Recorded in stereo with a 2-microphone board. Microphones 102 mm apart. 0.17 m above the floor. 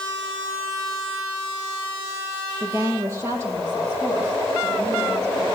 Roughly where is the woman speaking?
Right.